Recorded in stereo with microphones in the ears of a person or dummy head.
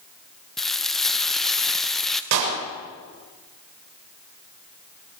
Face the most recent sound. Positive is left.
turn(degrees=-65)  # may be behind; listen again after turning